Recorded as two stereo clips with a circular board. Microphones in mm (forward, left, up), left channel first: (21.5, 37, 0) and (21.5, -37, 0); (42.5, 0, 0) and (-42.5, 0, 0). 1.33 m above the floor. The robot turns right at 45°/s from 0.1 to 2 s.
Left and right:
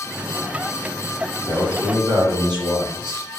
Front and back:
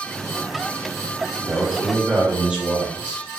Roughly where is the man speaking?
Behind right.